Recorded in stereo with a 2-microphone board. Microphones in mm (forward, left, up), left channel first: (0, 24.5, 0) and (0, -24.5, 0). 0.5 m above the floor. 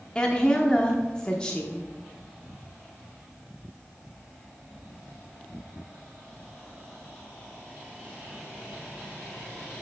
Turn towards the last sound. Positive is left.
turn(degrees=20)  # may be behind; listen again after turning